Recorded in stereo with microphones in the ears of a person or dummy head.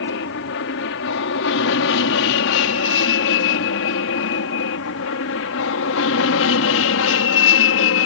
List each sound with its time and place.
0.0 s an aircraft: 65° left (ahead or behind); by 8.1 s 70° left (ahead or behind)